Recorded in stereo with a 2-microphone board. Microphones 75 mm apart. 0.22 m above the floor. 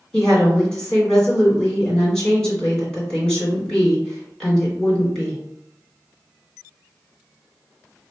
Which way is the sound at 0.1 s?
10° left (ahead or behind).